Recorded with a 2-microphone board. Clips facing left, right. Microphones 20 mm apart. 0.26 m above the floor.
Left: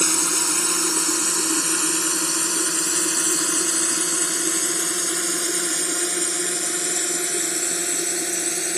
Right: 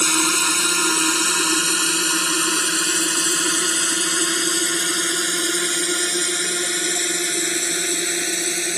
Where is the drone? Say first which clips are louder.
Right 4 dB; 60° right (ahead or behind); by 8.8 s 40° right (ahead or behind).